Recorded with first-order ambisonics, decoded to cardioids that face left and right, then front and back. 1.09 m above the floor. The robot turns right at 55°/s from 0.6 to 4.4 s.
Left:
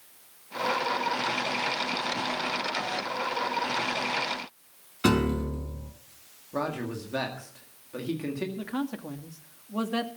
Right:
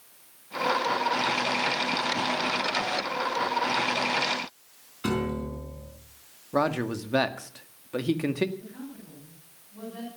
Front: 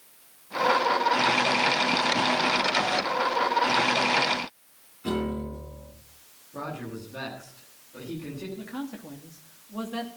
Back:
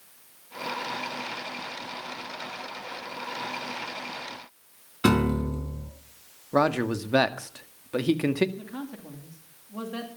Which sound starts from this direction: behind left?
A piano, at 5.0 s.